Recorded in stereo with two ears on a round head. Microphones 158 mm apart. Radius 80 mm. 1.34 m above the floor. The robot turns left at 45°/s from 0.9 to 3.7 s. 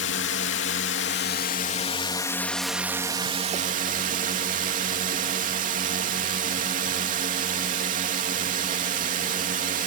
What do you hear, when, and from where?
0.0 s a drone: 80° left; by 9.9 s 45° right